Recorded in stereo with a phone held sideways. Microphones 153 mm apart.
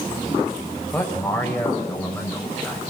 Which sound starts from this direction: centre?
A man speaking, at 0.9 s.